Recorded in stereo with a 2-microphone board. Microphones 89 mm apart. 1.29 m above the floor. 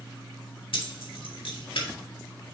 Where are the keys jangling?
80° left, 1.7 m.